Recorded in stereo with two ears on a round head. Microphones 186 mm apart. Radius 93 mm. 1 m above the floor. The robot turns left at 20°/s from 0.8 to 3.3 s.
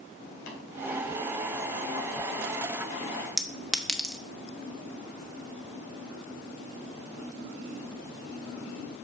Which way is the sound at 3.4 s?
Centre (ahead or behind).